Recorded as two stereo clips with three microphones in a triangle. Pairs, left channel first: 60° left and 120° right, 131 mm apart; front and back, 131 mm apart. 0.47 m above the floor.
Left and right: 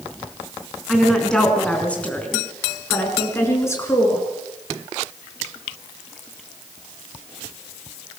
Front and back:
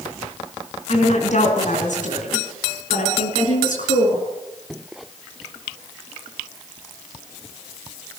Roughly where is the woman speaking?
Ahead right.